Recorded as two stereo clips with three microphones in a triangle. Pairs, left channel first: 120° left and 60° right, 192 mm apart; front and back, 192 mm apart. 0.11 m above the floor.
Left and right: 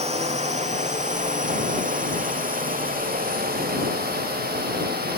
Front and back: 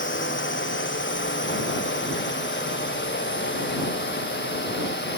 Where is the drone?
5° right; by 5.2 s 25° right.